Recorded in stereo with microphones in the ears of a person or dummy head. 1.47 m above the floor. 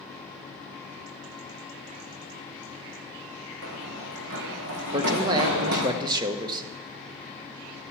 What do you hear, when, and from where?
3.6 s running footsteps: 75° right (ahead or behind), 5.5 m; by 5.9 s 70° right (ahead or behind), 4.5 m
4.9 s a man speaking: 25° right (ahead or behind), 1.3 m